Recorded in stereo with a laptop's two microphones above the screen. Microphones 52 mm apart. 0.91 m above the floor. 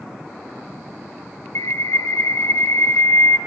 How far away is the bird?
About 1.6 m.